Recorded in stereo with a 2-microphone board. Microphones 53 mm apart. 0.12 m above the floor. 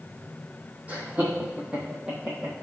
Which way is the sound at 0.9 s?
25° right (ahead or behind).